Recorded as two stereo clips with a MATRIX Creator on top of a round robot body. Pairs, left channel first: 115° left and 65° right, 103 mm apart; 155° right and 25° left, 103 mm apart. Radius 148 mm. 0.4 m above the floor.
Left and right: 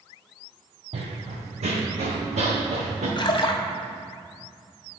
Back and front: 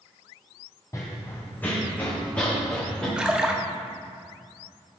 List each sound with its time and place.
0.9 s running footsteps: 95° right, 1.0 m; by 3.1 s 75° right, 2.5 m
3.2 s a splash: 100° left, 0.9 m